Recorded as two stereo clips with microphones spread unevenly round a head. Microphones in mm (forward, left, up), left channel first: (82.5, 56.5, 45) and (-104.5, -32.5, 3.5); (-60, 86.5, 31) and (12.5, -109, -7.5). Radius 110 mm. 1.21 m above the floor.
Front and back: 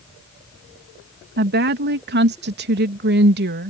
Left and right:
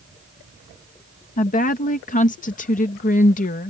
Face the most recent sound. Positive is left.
turn(degrees=165)